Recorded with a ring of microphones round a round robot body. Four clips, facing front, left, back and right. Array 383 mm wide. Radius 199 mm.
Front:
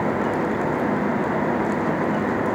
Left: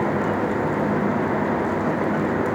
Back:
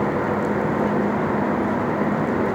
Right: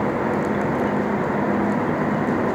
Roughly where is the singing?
I don't hear singing.